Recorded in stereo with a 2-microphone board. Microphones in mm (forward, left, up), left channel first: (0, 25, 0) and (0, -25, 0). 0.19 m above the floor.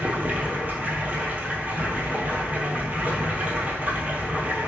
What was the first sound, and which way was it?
Running water, 30° right (ahead or behind).